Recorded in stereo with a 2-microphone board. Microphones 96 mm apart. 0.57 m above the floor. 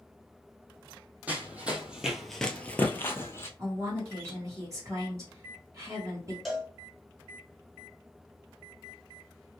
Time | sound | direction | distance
1.3 | running footsteps | 15° right (ahead or behind) | 1.2 m
3.6 | a woman speaking | 35° right (ahead or behind) | 1.2 m
6.5 | a cowbell | centre (ahead or behind) | 0.9 m